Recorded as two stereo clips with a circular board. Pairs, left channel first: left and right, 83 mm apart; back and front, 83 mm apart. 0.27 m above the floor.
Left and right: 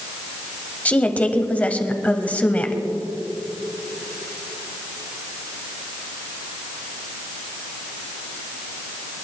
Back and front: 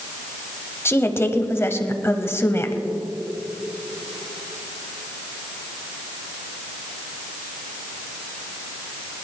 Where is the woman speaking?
150° left, 1.1 m.